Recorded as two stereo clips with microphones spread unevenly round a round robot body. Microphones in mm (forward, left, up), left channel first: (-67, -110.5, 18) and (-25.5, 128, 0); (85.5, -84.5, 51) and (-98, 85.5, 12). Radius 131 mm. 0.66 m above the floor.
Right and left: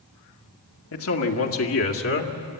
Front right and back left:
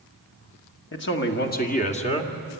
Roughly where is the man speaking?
Right.